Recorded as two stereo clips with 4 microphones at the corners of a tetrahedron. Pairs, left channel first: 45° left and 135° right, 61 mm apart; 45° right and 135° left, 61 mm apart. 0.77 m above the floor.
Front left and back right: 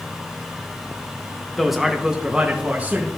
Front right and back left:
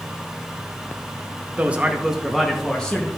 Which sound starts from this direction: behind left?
A man speaking, at 1.6 s.